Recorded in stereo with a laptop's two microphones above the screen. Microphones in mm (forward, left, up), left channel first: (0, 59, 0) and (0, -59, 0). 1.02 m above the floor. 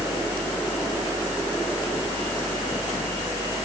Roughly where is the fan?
Centre.